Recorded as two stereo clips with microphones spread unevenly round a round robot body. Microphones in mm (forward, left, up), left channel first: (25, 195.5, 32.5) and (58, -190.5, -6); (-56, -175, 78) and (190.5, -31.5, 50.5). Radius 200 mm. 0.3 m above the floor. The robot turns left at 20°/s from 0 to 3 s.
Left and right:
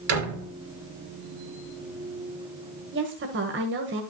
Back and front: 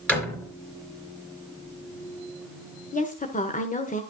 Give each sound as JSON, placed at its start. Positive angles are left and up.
{"t": 0.1, "sound": "a door slam", "azimuth_deg": -65, "distance_m": 4.0}
{"t": 2.9, "sound": "a woman speaking", "azimuth_deg": -95, "distance_m": 1.6}